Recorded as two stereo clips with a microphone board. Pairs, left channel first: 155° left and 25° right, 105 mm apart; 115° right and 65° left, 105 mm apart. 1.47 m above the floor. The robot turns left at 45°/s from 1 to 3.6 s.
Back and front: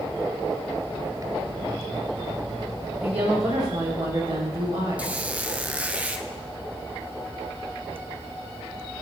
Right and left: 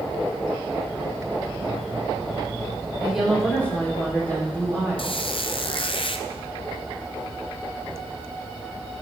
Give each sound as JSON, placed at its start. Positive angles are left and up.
{"t": 3.0, "sound": "a woman speaking", "azimuth_deg": -10, "distance_m": 3.5}
{"t": 5.0, "sound": "a squeak", "azimuth_deg": -100, "distance_m": 0.5}